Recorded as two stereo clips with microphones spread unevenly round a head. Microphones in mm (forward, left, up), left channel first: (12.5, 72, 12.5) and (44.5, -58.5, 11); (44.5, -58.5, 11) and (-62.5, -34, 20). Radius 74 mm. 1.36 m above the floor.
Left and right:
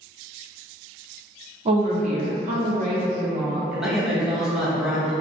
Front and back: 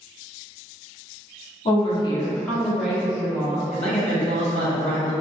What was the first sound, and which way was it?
A woman speaking, 35° right.